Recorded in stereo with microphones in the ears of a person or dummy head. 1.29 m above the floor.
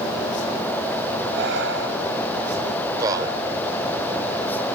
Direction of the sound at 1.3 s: 75° right (ahead or behind).